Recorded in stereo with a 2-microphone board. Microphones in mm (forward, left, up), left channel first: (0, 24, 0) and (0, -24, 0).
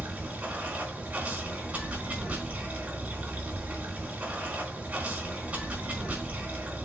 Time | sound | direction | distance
0.0 | running water | 25° right (ahead or behind) | 4 m